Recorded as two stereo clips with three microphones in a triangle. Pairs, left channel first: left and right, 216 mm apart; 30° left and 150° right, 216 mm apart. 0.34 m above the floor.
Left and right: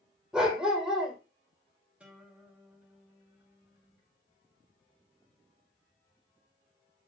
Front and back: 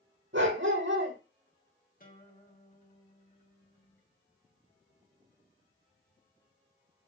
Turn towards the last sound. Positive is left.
turn(degrees=-5)